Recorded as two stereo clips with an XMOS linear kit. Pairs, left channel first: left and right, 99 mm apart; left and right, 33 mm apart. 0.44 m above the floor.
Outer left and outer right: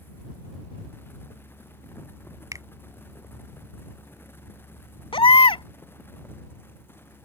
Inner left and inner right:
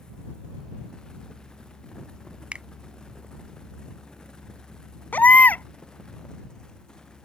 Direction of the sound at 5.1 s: 65° left (ahead or behind).